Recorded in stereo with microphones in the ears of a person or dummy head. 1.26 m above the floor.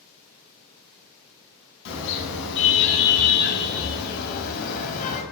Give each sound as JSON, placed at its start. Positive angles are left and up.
{"t": 1.9, "sound": "a car horn", "side_deg": 75, "distance_m": 6.5}